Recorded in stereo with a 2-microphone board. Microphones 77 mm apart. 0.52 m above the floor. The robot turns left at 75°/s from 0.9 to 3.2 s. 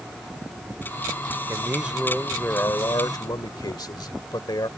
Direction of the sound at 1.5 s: 135° right.